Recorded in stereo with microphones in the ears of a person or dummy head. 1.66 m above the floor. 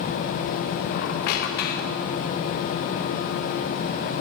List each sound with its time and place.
0.9 s a squeak: 55° left (ahead or behind), 1.2 m